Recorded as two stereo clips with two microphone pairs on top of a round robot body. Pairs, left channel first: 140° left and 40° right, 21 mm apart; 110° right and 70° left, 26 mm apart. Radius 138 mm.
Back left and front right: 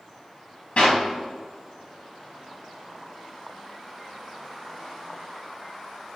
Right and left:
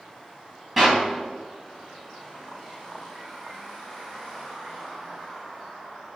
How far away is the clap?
About 1.9 m.